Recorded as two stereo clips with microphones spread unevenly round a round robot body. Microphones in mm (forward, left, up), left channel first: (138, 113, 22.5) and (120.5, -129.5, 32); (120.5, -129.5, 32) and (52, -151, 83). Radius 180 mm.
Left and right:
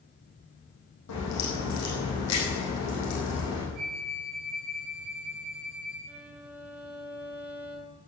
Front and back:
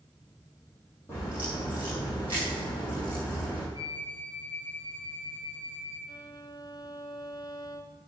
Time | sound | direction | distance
1.1 | a crack | 85° left | 6.5 m
3.7 | a flute | 5° left | 6.5 m
6.1 | a violin | 10° right | 2 m